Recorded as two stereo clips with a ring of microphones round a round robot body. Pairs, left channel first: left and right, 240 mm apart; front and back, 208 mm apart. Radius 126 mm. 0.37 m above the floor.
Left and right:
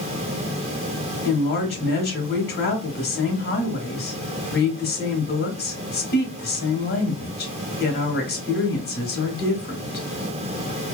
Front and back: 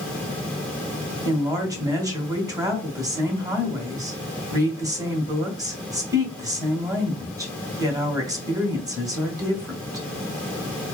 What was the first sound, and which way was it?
A woman speaking, 115° left.